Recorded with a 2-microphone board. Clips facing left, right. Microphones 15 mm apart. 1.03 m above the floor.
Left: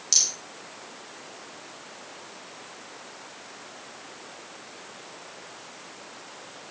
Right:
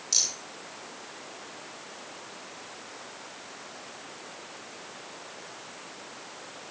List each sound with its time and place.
0.1 s a rattle: 45° left (ahead or behind), 8.5 m